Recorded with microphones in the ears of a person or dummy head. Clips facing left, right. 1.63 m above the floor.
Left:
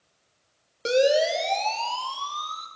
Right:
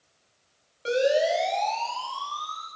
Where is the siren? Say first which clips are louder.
Left 2 dB; 60° left (ahead or behind), 4.5 m; by 2.7 s 40° left (ahead or behind), 5 m.